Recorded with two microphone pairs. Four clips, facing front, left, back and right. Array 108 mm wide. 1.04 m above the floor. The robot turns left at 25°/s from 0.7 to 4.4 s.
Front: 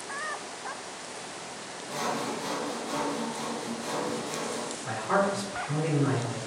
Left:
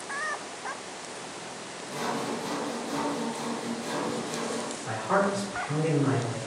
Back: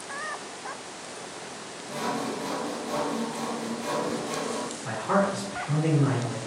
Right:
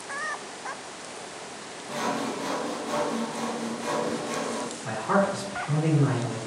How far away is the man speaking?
About 1.5 m.